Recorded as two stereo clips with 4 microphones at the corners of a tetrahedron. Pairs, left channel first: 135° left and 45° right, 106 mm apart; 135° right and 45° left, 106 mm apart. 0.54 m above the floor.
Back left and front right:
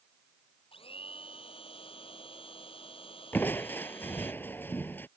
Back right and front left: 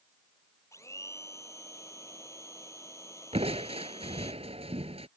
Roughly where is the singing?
I don't hear singing.